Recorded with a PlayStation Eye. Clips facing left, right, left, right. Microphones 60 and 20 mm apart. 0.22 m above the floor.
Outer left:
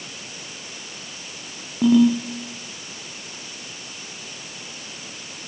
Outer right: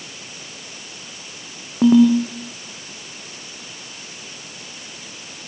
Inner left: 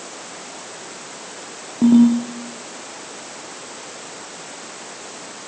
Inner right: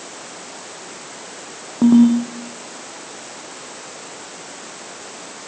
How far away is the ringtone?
About 4.5 m.